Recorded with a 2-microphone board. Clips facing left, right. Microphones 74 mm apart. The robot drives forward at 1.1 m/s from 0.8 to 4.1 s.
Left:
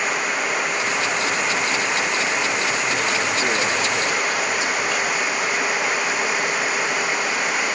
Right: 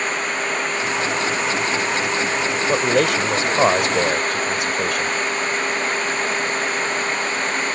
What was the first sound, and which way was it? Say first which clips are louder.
Running water: even; 10° left (ahead or behind).